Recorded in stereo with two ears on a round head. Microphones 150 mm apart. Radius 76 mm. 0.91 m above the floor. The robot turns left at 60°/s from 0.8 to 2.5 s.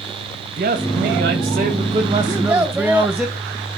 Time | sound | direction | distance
0.6 | a man speaking | 70° right | 1.5 m
2.3 | a child speaking | 25° right (ahead or behind) | 0.7 m